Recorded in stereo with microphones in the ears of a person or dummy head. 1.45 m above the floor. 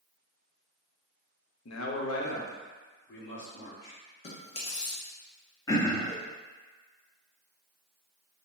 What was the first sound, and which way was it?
A man speaking, 70° left (ahead or behind).